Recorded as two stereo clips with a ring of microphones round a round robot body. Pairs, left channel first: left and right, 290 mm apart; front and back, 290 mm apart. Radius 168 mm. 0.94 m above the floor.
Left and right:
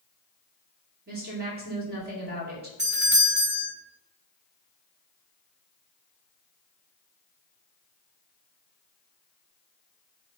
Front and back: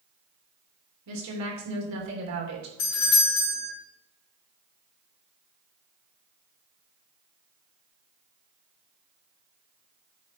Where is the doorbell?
40° right, 3.5 m.